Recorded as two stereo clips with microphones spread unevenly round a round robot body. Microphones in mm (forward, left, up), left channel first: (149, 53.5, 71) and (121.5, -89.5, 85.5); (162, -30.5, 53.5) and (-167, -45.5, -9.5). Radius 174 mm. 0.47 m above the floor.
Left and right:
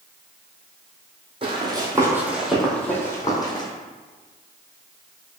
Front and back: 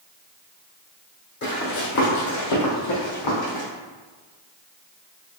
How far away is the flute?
No flute in this recording.